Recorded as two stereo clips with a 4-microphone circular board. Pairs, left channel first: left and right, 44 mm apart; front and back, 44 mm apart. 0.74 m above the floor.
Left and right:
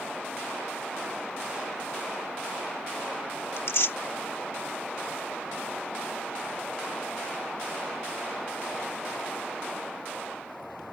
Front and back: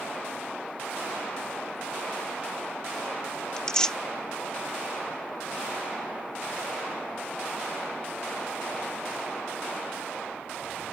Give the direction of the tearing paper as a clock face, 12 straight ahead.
10 o'clock.